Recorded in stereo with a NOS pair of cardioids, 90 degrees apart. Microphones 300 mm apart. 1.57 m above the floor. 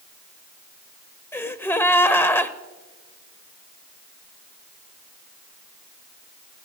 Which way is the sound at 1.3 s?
5° left.